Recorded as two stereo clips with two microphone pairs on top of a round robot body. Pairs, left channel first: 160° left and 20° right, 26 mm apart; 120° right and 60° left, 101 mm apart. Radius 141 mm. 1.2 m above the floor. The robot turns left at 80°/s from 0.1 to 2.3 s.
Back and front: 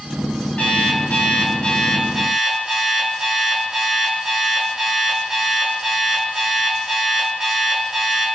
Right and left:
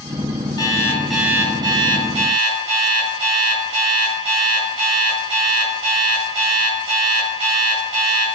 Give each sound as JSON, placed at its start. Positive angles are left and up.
{"t": 0.6, "sound": "an alarm clock", "azimuth_deg": -170, "distance_m": 5.0}